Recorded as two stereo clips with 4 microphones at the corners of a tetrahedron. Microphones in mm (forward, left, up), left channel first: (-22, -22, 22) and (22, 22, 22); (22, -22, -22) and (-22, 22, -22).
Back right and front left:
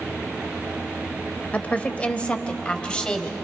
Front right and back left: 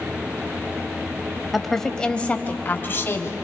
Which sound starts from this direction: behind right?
A woman speaking, at 1.5 s.